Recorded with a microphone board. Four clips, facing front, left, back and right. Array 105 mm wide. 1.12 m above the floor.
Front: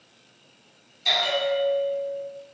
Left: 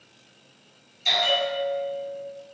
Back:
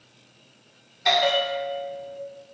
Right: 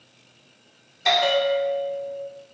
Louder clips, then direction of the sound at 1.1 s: Right 6 dB, back 3 dB; 125° right.